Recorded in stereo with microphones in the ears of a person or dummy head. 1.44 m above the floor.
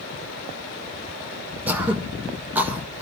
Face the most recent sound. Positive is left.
turn(degrees=0)  # may be behind; listen again after turning